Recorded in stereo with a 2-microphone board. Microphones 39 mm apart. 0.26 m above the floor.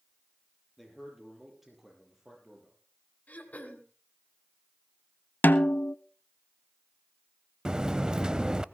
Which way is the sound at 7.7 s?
20° right (ahead or behind).